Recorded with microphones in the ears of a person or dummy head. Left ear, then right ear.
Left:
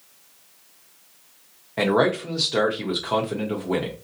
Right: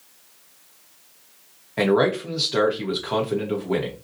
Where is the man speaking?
Centre (ahead or behind), 0.8 m.